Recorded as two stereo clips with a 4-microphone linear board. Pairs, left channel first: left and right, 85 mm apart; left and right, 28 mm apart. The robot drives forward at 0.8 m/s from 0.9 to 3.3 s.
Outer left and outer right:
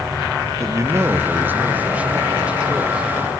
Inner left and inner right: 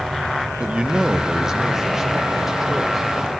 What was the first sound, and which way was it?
A man speaking, 35° right (ahead or behind).